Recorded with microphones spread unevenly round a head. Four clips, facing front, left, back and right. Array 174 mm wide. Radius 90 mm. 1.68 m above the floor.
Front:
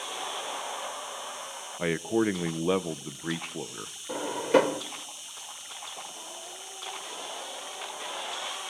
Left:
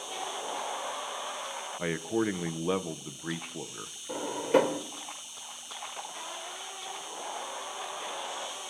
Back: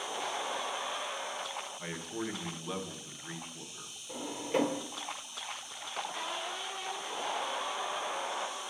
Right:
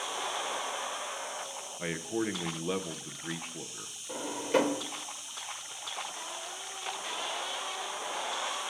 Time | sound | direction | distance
0.0 | an insect | 40° left | 9.5 m
1.8 | a man speaking | 10° left | 1.1 m
4.1 | a drawer | 20° left | 1.8 m